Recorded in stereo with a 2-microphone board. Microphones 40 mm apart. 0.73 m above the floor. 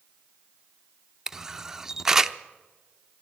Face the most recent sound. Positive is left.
turn(degrees=-10)  # may be behind; listen again after turning